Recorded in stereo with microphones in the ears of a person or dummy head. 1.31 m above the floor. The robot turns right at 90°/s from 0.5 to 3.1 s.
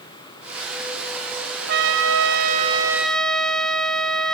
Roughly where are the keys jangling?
I don't hear keys jangling.